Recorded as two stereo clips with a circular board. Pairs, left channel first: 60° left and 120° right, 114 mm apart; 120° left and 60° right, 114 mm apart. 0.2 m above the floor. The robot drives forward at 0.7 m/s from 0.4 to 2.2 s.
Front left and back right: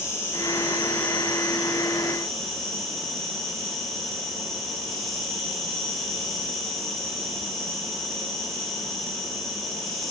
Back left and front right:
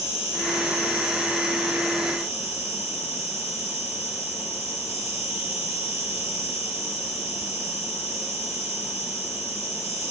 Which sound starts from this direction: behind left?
An insect, at 0.0 s.